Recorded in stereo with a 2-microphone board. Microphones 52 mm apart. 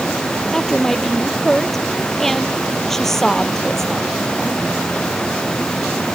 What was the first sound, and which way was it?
A woman speaking, 5° left (ahead or behind).